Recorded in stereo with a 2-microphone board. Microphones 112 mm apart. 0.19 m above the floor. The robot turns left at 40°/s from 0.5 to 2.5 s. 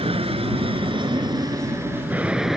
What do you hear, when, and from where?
0.0 s an aircraft: 55° right (ahead or behind); by 2.6 s 5° right (ahead or behind)